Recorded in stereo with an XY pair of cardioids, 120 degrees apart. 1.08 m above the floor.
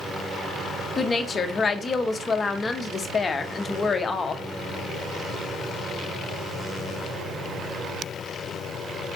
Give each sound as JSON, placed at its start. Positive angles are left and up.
{"t": 1.0, "sound": "a woman speaking", "azimuth_deg": 30, "distance_m": 0.9}